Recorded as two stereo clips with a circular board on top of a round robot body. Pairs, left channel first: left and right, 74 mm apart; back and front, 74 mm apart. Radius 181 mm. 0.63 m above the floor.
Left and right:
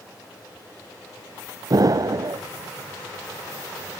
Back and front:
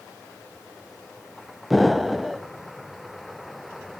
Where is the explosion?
90° right, 0.7 m.